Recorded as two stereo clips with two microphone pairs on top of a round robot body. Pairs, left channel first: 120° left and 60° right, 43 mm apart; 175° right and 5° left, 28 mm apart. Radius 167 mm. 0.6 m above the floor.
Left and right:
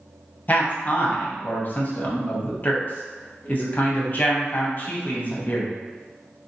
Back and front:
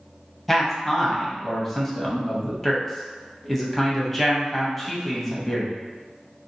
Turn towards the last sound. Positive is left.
turn(degrees=100)